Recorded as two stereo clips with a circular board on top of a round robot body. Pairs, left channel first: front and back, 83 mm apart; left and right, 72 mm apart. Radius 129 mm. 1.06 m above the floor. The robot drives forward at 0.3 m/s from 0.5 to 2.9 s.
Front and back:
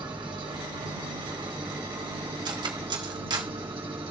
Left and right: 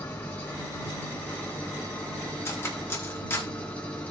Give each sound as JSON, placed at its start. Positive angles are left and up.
{"t": 0.0, "sound": "an engine running", "azimuth_deg": 150, "distance_m": 1.8}
{"t": 2.5, "sound": "cutlery clinking", "azimuth_deg": 145, "distance_m": 1.6}